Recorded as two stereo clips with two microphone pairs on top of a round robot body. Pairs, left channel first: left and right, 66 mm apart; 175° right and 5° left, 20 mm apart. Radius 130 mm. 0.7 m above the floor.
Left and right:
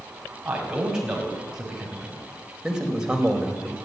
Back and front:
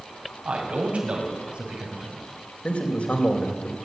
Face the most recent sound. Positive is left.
turn(degrees=-170)